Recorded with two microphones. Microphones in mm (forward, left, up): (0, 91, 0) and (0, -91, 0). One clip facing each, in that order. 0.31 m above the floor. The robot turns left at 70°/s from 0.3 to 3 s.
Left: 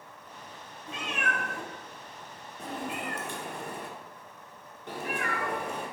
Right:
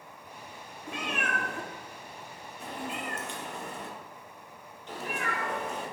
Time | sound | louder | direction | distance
0.9 | a cat meowing | right 1 dB | 70° right (ahead or behind) | 0.6 m